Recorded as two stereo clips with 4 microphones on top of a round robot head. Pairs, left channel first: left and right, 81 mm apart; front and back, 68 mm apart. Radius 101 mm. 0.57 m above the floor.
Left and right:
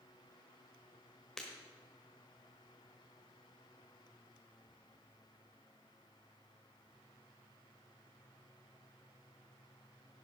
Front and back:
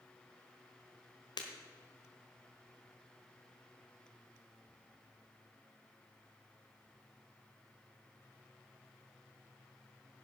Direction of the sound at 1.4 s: 5° left.